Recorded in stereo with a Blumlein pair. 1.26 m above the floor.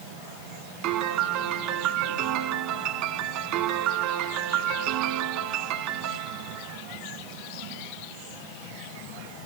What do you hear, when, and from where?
0.8 s a piano: 45° right, 1.3 m